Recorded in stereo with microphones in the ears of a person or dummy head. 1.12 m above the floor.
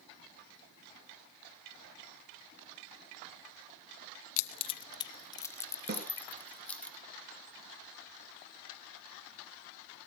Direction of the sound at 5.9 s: 45° right (ahead or behind).